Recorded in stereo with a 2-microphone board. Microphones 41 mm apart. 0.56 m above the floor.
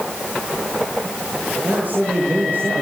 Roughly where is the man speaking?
Right.